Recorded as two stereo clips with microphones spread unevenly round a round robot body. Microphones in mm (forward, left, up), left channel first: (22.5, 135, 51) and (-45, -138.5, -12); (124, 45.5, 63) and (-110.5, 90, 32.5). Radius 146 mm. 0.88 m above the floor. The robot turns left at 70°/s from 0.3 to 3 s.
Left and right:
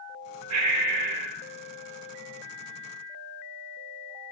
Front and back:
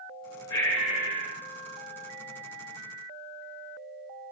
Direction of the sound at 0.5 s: 70° right.